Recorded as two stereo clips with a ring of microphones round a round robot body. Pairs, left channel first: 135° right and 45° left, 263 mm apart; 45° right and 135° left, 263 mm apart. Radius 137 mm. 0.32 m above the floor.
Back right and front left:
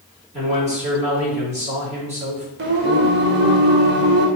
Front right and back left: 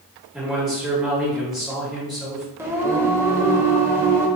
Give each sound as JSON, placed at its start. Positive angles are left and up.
{"t": 0.3, "sound": "a man speaking", "azimuth_deg": 50, "distance_m": 1.4}
{"t": 2.6, "sound": "singing", "azimuth_deg": 60, "distance_m": 0.6}